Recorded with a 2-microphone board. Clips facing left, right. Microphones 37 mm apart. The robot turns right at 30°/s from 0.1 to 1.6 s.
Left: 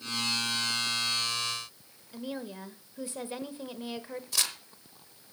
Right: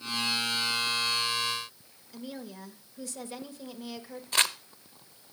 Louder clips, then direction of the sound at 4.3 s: Right 7 dB; 40° right (ahead or behind).